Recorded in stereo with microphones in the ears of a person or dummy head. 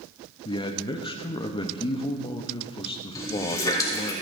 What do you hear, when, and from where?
0.5 s a man speaking: 25° left (ahead or behind), 0.8 m
3.1 s a running tap: 20° left (ahead or behind), 3 m